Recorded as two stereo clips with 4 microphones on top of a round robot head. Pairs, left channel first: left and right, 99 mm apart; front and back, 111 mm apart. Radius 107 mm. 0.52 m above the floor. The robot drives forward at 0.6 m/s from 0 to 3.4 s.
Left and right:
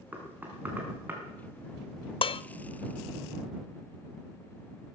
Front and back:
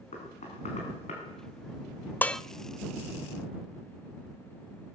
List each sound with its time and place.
0.1 s knocking: 15° right, 4.5 m; by 1.2 s 20° right, 4 m
2.2 s dishes clattering: 75° left, 0.5 m; by 2.4 s 90° left, 0.5 m